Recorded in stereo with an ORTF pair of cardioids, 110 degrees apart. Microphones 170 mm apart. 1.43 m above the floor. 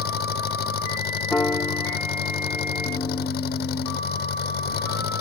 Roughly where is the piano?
Ahead.